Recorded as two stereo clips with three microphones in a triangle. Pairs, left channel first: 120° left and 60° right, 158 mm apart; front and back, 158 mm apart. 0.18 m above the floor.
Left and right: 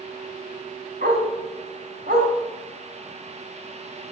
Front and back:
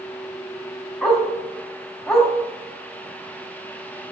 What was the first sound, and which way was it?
A dog barking, 90° right.